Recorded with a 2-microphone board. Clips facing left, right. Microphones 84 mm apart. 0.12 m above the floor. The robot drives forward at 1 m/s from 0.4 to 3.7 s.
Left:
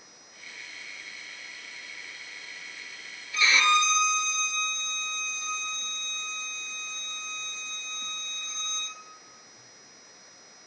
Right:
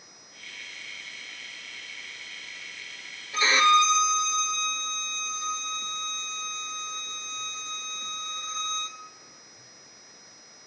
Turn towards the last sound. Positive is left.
turn(degrees=-40)  # may be behind; listen again after turning